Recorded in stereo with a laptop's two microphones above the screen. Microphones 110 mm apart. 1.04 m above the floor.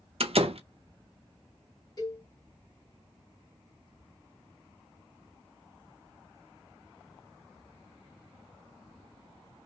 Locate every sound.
0.2 s a door slam: 65° right (ahead or behind), 0.6 m
2.0 s a cowbell: 35° left (ahead or behind), 1.4 m